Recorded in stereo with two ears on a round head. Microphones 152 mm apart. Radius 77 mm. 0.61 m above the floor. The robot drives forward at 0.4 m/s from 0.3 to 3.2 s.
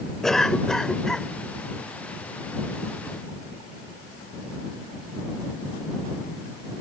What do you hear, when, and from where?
0.2 s a cough: 5° left (ahead or behind)